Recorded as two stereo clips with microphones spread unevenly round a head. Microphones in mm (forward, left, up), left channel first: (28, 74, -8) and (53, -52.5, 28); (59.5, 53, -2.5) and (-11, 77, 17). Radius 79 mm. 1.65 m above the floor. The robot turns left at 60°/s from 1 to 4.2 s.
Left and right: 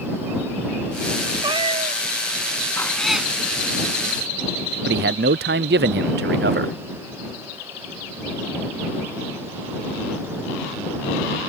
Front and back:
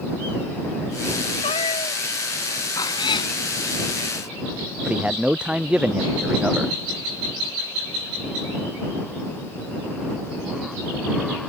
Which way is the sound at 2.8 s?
20° left.